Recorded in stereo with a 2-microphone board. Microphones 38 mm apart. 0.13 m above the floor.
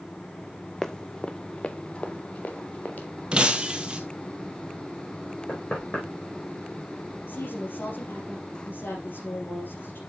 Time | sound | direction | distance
0.8 | running footsteps | 10° left (ahead or behind) | 0.6 m
3.3 | breaking glass | 25° right (ahead or behind) | 1.2 m
5.5 | knocking | 45° left (ahead or behind) | 5 m
7.3 | a woman speaking | 65° left (ahead or behind) | 3.5 m